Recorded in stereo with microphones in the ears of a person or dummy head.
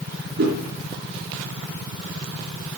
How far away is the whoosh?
About 4 m.